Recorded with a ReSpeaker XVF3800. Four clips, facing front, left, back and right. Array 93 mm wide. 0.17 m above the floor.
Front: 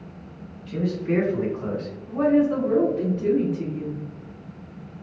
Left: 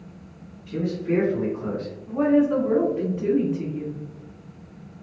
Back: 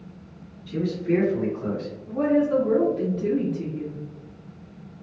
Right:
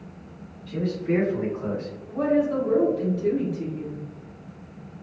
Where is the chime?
I don't hear a chime.